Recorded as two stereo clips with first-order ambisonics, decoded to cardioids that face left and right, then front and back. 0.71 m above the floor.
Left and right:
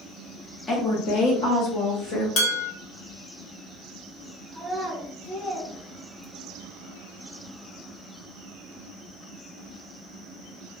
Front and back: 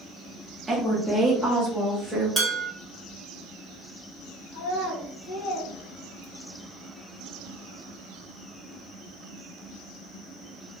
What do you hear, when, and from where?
0.7 s a woman speaking: 115° left, 0.6 m; by 2.3 s 80° left, 1.4 m
2.4 s dishes clattering: 100° left, 0.8 m
4.5 s a child speaking: 10° left, 1.4 m